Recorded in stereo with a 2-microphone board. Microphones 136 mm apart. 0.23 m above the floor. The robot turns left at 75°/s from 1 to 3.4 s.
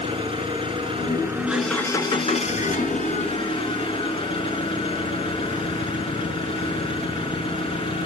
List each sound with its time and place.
0.0 s an engine running: 135° right, 3 m; by 8.1 s 45° left, 3 m